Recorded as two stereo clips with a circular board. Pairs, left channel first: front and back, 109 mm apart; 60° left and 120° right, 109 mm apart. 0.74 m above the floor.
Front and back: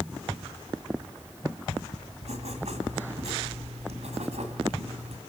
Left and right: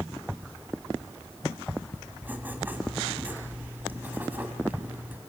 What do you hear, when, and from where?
2.2 s writing: 165° left, 2.5 m